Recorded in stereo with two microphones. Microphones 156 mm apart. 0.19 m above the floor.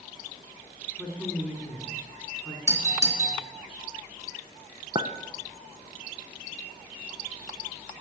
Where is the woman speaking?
5° right (ahead or behind), 2.5 m.